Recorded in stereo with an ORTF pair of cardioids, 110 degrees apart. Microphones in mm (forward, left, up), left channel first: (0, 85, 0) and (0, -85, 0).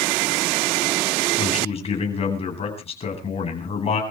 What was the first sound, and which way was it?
A man speaking, 35° left.